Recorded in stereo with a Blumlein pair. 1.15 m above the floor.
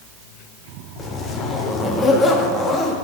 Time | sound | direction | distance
1.0 | a zipper | 20° left | 1.2 m